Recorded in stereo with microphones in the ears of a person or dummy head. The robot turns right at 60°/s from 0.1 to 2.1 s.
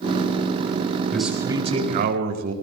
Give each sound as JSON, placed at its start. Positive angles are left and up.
{"t": 1.1, "sound": "a man speaking", "azimuth_deg": 175, "distance_m": 5.0}